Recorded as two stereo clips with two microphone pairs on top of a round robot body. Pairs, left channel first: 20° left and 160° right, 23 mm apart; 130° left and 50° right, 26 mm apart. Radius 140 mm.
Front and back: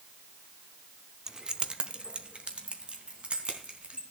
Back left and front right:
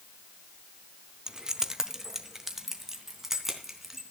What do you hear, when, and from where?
1.3 s keys jangling: 100° right, 0.8 m; by 4.0 s 125° right, 4 m